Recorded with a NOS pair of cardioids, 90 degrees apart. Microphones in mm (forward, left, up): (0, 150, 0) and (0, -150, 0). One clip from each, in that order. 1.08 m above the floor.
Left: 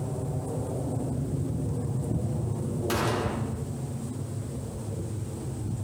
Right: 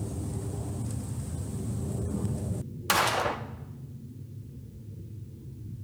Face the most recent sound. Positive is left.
turn(degrees=-60)